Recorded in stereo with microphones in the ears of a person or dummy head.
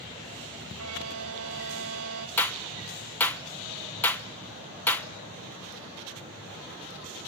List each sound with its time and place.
0.8 s a violin: 85° right, 2 m
2.4 s a clap: 10° left (ahead or behind), 1.2 m